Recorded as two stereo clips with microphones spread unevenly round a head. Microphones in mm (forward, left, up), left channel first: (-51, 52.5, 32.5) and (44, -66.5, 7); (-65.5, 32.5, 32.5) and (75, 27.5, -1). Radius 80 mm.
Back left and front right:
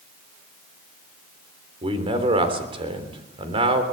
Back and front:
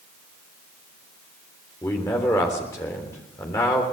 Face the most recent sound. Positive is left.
turn(degrees=-110)